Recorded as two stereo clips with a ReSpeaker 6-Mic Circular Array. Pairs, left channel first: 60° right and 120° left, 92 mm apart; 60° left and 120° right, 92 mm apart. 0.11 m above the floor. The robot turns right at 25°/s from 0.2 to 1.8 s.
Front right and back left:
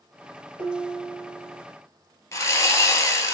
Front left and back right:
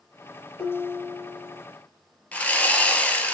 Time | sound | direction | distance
0.6 | dishes clattering | 40° right | 2 m
2.3 | sawing | 10° right | 0.7 m